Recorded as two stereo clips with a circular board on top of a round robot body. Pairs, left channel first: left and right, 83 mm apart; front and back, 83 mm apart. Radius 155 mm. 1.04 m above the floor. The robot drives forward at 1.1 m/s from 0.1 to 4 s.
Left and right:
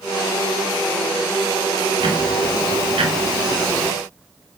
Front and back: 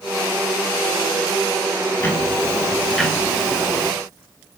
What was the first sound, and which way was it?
Ticking, 65° right.